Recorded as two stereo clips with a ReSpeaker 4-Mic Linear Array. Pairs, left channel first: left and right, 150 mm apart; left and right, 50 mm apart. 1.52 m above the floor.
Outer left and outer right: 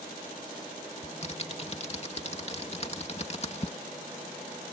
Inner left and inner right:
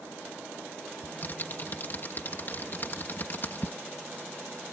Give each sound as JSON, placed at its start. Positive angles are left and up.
{"t": 1.0, "sound": "typing on a keyboard", "side_deg": 45}